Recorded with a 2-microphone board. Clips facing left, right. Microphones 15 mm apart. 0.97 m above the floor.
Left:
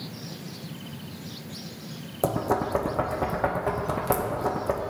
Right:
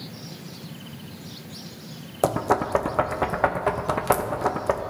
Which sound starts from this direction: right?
Knocking, at 2.2 s.